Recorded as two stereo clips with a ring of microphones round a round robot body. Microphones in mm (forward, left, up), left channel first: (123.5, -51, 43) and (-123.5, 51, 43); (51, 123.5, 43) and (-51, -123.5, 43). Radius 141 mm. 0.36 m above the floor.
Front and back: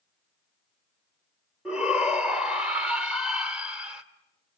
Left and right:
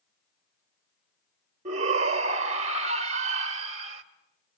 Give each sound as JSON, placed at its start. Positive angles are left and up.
{"t": 1.6, "sound": "a shout", "azimuth_deg": -120, "distance_m": 1.2}